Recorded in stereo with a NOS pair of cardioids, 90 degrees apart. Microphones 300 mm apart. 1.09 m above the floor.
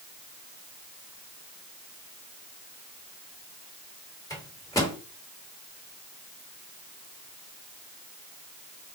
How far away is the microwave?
About 1.4 m.